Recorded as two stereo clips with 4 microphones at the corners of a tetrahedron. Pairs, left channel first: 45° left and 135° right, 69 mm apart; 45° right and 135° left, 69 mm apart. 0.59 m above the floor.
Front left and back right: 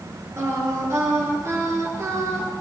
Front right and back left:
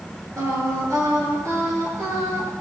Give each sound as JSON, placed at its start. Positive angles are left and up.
{"t": 0.4, "sound": "singing", "azimuth_deg": 175, "distance_m": 9.5}